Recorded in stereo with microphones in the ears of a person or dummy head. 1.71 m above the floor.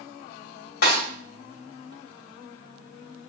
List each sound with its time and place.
0.8 s a snare drum: 65° left (ahead or behind), 3 m